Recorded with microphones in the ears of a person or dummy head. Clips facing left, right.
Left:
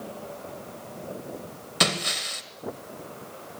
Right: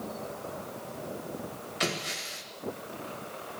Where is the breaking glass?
60° left (ahead or behind), 1.9 m.